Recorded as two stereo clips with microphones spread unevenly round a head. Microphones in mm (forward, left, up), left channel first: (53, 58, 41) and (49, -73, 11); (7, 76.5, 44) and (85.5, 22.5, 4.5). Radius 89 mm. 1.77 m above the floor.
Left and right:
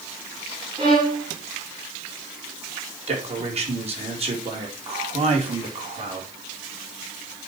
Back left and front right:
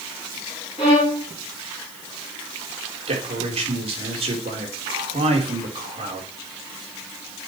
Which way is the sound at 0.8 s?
155° right.